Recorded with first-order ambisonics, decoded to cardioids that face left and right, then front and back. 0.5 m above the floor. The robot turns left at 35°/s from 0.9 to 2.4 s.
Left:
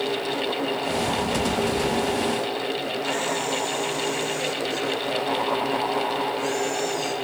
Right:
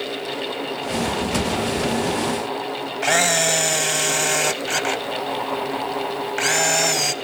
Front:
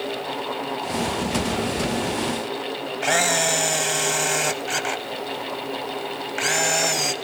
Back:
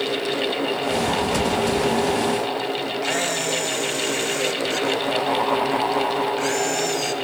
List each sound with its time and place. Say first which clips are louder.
3.0 s a camera shutter: right 11 dB, front 6 dB; 65° right, 0.6 m